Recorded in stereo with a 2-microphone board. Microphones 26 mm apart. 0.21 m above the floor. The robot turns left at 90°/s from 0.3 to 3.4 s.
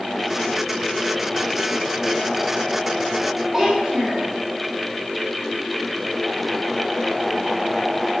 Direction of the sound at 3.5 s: 35° right (ahead or behind).